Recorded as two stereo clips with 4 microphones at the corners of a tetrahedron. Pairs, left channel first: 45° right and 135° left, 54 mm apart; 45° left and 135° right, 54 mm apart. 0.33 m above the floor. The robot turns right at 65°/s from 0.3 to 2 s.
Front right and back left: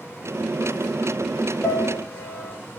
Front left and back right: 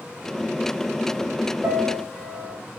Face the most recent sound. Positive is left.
turn(degrees=-80)